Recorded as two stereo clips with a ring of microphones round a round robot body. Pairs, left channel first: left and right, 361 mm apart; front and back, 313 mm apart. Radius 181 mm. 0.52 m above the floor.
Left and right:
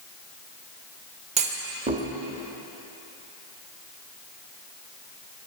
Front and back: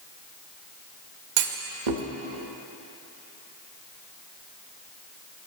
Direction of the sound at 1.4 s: 165° right.